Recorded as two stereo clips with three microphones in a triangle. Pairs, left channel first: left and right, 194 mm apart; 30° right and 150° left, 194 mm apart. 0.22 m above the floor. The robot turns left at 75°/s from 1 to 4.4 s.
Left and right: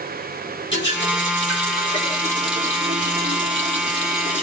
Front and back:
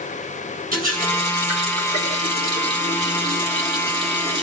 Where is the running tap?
110° left, 4 m; by 4.4 s 145° right, 4 m.